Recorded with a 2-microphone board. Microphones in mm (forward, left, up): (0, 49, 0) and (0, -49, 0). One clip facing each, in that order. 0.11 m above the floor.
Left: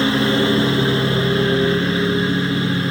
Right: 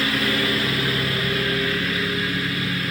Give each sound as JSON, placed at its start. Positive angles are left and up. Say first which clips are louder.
{"t": 0.0, "sound": "a lawn mower", "louder": "left 7 dB", "side_deg": 25}